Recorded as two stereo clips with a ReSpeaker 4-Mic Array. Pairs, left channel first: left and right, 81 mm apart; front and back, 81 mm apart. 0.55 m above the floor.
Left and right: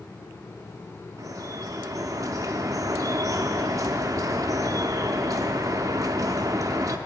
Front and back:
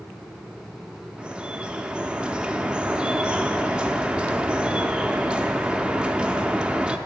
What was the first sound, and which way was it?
Dripping, 105° right.